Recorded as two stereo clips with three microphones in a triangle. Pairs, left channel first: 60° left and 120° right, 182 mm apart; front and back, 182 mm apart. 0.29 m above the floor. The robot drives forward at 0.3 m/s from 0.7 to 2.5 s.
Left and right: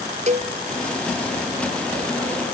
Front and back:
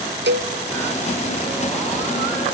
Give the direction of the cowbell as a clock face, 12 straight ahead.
6 o'clock.